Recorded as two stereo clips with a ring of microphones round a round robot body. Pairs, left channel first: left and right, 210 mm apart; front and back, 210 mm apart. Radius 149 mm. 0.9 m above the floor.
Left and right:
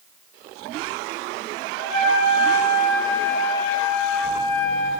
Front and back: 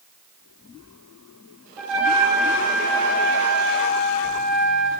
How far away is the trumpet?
About 3 m.